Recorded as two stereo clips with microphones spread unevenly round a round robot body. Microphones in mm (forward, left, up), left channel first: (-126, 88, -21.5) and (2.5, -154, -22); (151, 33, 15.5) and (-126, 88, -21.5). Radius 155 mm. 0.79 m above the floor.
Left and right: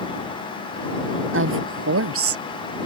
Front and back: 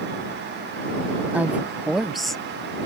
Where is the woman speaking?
105° right; by 2.4 s 100° right.